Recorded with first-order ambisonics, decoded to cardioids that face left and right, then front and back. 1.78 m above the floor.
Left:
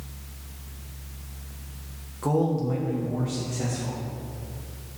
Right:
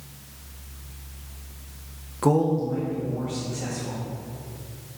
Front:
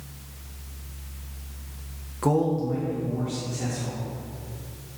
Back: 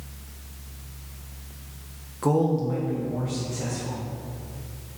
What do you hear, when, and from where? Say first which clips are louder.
2.2 s a man speaking: right 3 dB, even; 75° right, 0.5 m; by 4.0 s 115° left, 2.5 m